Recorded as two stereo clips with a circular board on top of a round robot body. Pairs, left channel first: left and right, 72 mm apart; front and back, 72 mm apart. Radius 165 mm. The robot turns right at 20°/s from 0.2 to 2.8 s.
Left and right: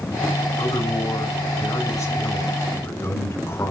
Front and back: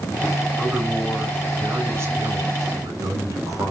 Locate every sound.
0.6 s a man speaking: 100° left, 6 m; by 3.7 s 145° left, 6 m